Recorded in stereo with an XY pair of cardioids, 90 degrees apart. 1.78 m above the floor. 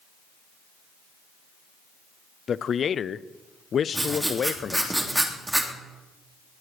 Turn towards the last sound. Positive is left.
turn(degrees=-15)